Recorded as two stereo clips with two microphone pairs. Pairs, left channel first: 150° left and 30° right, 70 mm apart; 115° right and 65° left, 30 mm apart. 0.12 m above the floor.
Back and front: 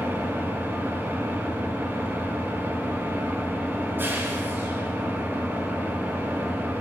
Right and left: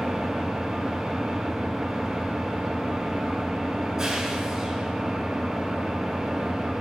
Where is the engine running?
Straight ahead, 1.3 m.